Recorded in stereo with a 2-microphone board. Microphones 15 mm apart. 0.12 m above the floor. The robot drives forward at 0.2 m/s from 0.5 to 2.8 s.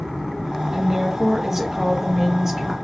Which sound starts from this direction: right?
A woman speaking, at 0.7 s.